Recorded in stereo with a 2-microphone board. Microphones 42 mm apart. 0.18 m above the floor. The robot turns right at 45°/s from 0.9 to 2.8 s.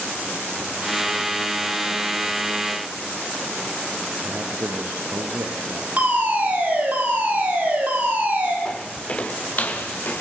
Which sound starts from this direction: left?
Footsteps, at 8.7 s.